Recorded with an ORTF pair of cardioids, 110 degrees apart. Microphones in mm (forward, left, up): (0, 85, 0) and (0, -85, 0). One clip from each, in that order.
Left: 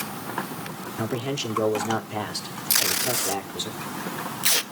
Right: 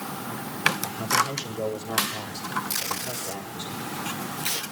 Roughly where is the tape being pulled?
Ahead left.